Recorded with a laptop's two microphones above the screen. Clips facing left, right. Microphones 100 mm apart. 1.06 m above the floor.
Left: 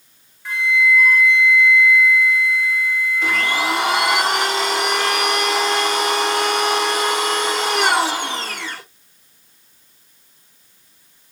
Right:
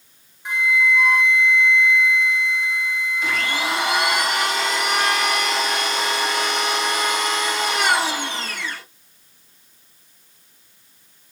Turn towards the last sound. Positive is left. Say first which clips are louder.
# left 4 dB
turn(degrees=70)  # may be behind; listen again after turning